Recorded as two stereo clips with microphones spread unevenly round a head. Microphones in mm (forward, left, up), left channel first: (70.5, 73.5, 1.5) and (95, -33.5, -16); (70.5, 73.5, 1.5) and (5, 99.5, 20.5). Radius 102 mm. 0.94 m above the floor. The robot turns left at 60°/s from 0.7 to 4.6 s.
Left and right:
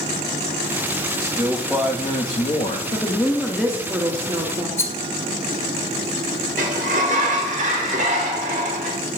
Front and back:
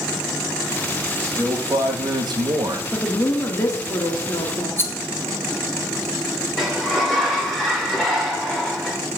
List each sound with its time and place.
1.2 s a man speaking: 130° right, 1.3 m; by 2.8 s 135° left, 1.3 m
2.9 s a woman speaking: 45° left, 1.8 m; by 4.7 s 60° right, 1.8 m
4.8 s a rattle: 40° left, 1.8 m
6.6 s a sliding door: 115° right, 1.3 m